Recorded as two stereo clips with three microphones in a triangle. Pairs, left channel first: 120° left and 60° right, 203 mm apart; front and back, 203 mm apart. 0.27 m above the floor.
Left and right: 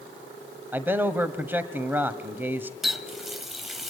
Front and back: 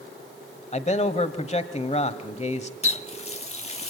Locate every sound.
0.7 s a man speaking: 10° left, 1.3 m
2.8 s a running tap: 30° left, 0.7 m